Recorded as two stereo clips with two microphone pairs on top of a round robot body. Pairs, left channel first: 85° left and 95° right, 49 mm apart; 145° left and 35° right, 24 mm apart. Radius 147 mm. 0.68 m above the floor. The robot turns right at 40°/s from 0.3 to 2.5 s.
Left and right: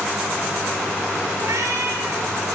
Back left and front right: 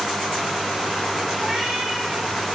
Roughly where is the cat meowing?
Right.